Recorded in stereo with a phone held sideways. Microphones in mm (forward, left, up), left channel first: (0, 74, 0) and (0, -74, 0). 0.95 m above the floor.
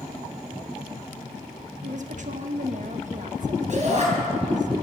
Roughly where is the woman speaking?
Right.